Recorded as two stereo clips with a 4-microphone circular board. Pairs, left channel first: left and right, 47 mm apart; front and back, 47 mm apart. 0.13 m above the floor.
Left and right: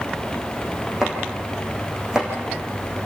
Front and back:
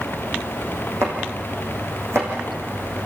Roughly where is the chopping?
Behind.